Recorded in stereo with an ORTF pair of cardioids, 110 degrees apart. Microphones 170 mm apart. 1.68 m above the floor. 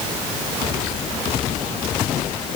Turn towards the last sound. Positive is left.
No sound to turn to.